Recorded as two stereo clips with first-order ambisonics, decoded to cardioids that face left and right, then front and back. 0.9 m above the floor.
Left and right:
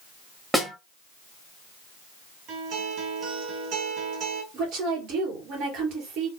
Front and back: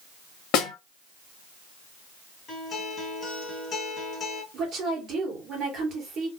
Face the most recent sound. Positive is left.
turn(degrees=-125)